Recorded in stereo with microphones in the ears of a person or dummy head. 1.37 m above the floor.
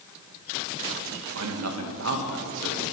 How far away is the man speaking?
About 2.0 m.